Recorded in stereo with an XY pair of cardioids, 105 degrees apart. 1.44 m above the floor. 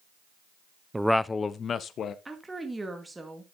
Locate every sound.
0.9 s a man speaking: 15° right, 0.5 m; by 2.1 s 60° left, 1.3 m
2.2 s a woman speaking: 15° right, 2.5 m